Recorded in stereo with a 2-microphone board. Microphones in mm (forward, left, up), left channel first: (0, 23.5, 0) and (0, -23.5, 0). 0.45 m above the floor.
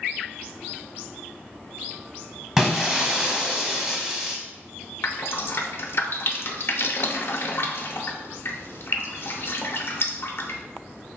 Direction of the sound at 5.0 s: 55° left (ahead or behind).